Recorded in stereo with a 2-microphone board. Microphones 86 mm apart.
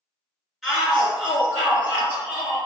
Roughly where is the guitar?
No guitar in this recording.